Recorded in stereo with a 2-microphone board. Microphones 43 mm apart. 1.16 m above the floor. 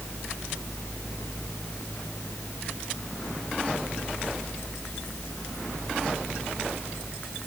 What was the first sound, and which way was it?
Only background noise.